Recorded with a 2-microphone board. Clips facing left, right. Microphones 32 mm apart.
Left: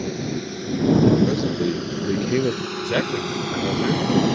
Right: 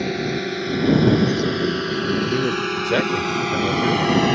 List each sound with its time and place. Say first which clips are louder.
0.0 s a drone: right 4 dB; 45° right (ahead or behind); by 4.4 s 60° right (ahead or behind)
1.2 s a man speaking: right 1 dB; 30° left (ahead or behind)
2.8 s a man speaking: right 3 dB; 25° right (ahead or behind)